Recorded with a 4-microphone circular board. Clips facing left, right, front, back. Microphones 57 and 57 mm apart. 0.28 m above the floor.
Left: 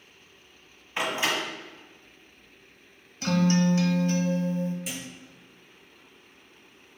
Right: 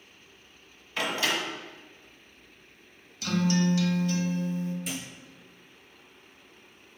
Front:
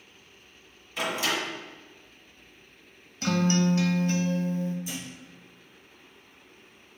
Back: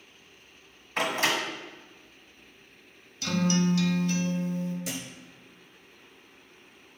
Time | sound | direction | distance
1.0 | a door slam | 155° left | 1.5 m
3.2 | a guitar | 45° left | 0.6 m
4.8 | a thud | straight behind | 1.2 m